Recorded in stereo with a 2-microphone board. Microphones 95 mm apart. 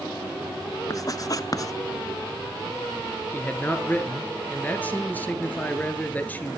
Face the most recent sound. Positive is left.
turn(degrees=15)  # may be behind; listen again after turning